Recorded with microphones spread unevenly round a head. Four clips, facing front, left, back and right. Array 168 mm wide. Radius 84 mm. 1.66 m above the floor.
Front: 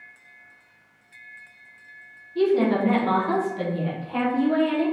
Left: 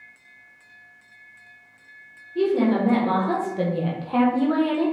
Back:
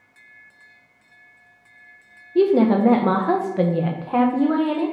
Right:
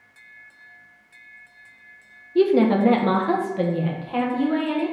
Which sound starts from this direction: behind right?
A woman speaking, at 2.4 s.